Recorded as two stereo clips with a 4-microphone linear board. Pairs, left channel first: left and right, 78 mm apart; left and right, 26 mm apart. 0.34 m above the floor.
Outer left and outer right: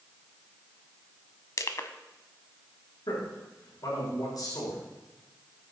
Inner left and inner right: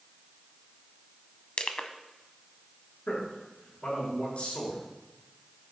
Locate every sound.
1.6 s crushing: 50° left (ahead or behind), 0.8 m
3.1 s a man speaking: 65° left (ahead or behind), 6 m